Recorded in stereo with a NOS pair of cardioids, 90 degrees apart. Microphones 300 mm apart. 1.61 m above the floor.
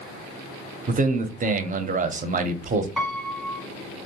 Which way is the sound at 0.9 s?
25° right.